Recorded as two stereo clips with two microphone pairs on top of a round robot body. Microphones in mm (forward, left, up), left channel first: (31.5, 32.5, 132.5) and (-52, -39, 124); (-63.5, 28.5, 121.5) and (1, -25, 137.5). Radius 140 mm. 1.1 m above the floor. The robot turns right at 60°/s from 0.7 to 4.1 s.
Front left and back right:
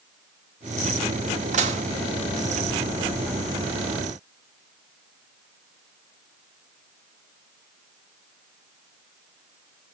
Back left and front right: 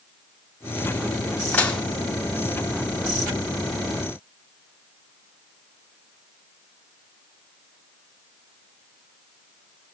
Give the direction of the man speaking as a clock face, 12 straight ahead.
I don't hear a man speaking.